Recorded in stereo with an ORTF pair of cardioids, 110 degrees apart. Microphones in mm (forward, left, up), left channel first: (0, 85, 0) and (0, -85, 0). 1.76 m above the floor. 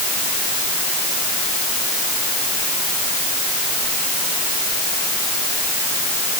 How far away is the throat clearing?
No throat clearing in this recording.